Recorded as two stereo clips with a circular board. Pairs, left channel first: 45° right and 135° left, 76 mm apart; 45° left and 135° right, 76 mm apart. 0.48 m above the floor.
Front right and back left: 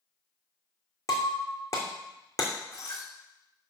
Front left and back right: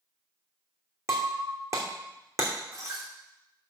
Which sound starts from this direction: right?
Breaking glass, at 1.1 s.